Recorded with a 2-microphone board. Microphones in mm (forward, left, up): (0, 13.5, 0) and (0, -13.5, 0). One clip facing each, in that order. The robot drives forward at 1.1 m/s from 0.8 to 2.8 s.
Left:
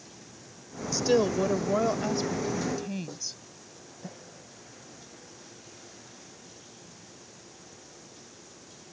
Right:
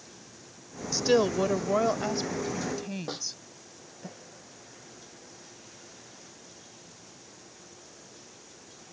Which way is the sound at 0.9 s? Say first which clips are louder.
Even; 20° right (ahead or behind).